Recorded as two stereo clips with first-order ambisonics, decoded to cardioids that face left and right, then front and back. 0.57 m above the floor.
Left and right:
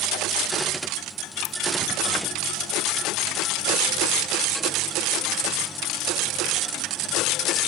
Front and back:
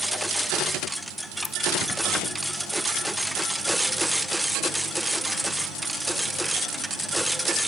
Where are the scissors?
65° left.